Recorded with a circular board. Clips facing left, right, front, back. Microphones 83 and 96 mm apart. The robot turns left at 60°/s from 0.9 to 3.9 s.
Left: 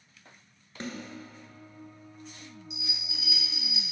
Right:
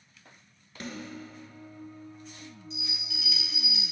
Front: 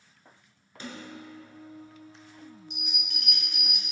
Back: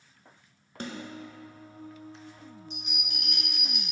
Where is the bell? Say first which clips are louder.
Right 2 dB, back 1 dB; 155° left, 1.5 m; by 3.8 s 85° left, 1.5 m.